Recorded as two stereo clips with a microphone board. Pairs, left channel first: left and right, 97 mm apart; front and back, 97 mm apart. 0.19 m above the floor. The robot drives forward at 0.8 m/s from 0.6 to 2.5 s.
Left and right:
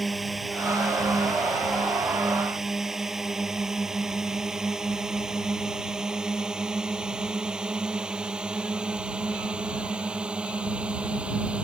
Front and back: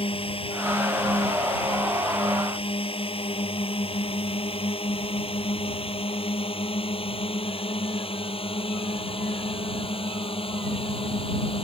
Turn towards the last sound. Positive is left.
turn(degrees=-10)